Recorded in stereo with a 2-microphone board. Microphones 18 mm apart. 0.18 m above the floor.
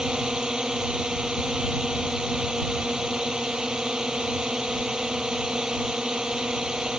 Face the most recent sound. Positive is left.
turn(degrees=-45)  # may be behind; listen again after turning